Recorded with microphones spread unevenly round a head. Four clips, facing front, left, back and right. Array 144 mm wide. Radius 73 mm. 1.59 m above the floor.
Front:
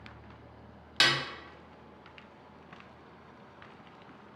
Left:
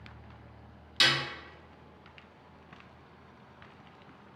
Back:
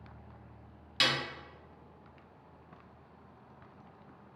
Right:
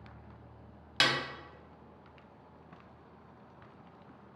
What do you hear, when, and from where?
1.0 s a snare drum: 50° right, 0.7 m